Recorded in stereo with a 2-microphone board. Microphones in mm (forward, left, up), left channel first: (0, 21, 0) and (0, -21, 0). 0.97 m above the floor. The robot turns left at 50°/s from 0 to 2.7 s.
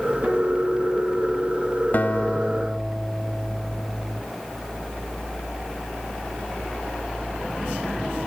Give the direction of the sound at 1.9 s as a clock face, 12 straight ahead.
11 o'clock.